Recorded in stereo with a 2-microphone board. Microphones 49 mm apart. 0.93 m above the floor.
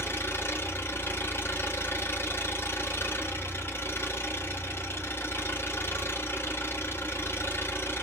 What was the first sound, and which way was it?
An engine running, 55° left (ahead or behind).